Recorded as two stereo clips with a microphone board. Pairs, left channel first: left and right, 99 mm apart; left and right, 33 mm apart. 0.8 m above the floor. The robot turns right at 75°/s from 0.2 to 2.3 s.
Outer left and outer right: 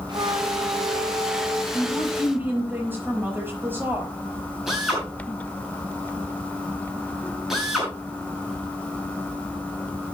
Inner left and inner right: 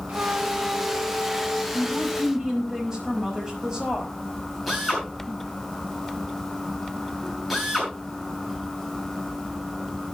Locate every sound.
0.1 s a flute: 130° right, 1.7 m; by 1.6 s 25° right, 1.7 m
1.7 s a woman speaking: 65° right, 5 m; by 4.1 s 20° right, 5 m
4.7 s a drill: 5° right (ahead or behind), 7.5 m